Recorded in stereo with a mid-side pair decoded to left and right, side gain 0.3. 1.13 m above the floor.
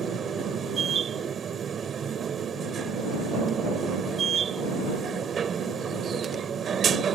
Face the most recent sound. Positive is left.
turn(degrees=-70)